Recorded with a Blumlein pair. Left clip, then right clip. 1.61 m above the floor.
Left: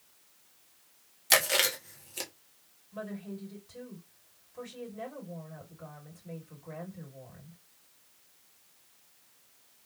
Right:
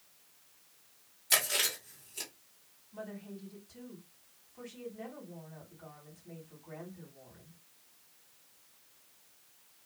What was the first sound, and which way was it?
Chewing, 25° left.